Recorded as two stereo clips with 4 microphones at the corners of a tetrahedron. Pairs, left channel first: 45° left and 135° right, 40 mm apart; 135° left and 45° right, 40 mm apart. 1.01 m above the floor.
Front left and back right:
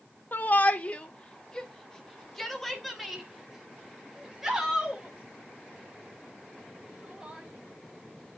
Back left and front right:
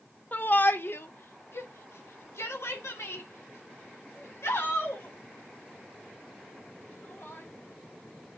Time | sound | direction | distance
0.3 | a shout | 90° left | 1.0 m